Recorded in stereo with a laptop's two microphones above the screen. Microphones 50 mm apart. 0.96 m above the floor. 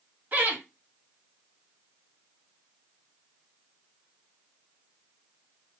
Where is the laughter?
40° right (ahead or behind), 1.8 m.